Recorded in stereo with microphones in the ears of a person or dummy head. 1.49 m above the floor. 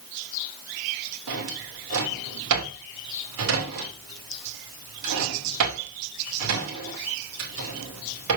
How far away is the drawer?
About 2.5 m.